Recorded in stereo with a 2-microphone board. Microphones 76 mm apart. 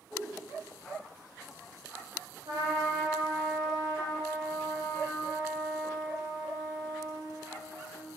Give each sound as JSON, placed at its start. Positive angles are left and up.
{"t": 0.1, "sound": "a whoosh", "side_deg": -10, "distance_m": 1.6}
{"t": 2.5, "sound": "a trumpet", "side_deg": -65, "distance_m": 1.1}